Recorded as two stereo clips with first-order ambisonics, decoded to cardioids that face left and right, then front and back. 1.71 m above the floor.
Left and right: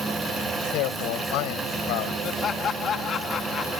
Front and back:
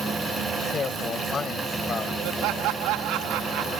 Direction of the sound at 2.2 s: 155° left.